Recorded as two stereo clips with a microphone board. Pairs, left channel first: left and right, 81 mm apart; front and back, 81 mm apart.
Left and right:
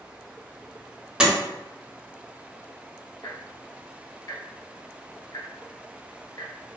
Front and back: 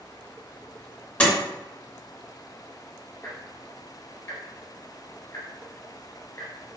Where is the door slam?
35° right, 0.5 m.